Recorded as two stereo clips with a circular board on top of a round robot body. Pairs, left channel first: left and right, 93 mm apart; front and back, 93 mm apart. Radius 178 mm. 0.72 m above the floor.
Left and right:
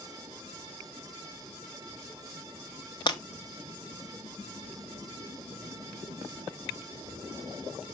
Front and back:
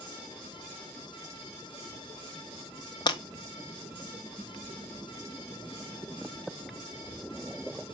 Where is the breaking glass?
45° left, 1.4 m.